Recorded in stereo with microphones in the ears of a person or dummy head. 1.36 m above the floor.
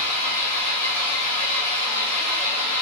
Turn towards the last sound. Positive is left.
turn(degrees=-35)  # may be behind; listen again after turning